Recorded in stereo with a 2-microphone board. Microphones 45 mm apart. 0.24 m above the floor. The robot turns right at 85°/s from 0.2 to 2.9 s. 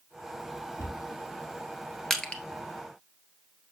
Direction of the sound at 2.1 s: 5° left (ahead or behind).